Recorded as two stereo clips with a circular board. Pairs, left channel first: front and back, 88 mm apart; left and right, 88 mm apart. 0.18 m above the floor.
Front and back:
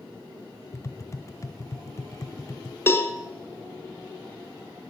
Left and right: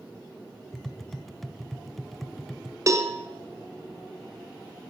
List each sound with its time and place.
0.7 s tapping: 5° left, 0.6 m
2.9 s a cowbell: 55° right, 1.2 m